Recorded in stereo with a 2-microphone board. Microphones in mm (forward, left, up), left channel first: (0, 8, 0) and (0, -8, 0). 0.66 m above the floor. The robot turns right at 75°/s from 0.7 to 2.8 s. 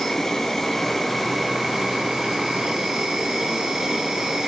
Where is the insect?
145° left, 2.5 m; by 4.5 s 60° right, 2.5 m.